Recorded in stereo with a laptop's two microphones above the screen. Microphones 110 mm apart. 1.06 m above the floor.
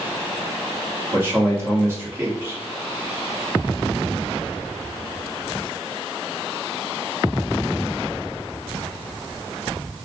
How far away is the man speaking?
About 2 m.